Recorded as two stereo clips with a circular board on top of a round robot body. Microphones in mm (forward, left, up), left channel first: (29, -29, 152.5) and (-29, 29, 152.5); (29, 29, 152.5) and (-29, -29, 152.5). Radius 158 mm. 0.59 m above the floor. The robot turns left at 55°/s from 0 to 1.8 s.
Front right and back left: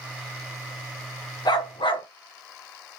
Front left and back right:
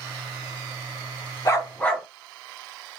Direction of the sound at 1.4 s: 10° right.